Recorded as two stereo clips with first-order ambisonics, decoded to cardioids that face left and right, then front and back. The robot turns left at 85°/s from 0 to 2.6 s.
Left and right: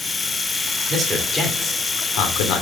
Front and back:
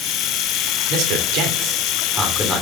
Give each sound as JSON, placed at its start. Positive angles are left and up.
{"t": 0.9, "sound": "a man speaking", "azimuth_deg": -150, "distance_m": 2.5}